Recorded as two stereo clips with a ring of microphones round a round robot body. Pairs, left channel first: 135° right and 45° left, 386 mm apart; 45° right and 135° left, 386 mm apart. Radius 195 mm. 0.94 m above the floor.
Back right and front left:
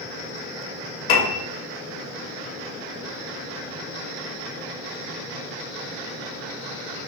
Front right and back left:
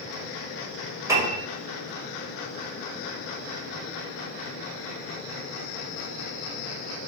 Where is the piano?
140° right, 2 m.